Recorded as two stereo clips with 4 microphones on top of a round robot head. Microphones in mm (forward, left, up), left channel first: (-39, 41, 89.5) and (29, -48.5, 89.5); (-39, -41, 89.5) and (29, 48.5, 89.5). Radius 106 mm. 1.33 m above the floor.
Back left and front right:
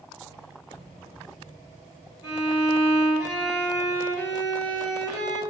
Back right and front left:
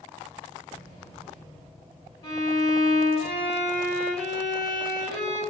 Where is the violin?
175° right, 0.8 m.